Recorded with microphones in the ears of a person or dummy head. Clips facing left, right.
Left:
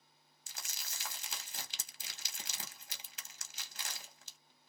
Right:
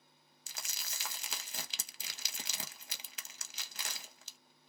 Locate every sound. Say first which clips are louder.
0.5 s crumpling: right 2 dB; 55° right (ahead or behind), 0.7 m